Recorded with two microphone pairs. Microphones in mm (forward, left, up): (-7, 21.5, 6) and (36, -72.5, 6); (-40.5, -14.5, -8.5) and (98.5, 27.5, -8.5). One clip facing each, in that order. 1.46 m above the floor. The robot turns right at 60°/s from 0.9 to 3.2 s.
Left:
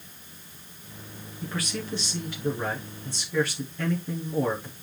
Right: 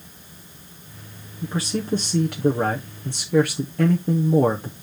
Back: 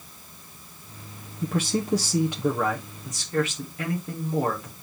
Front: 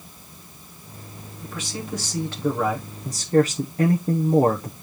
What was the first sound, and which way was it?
A man speaking, 140° right.